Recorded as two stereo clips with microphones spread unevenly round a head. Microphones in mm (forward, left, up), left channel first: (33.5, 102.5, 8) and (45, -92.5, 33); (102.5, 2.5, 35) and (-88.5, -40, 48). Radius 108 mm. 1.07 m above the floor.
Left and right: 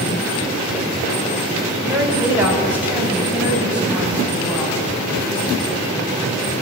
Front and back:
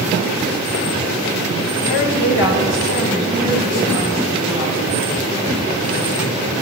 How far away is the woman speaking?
About 5.5 m.